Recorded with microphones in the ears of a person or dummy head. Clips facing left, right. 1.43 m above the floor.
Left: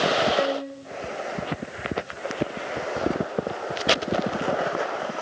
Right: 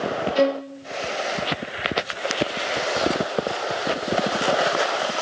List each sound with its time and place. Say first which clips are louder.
0.3 s a violin: right 4 dB; 45° right (ahead or behind), 0.7 m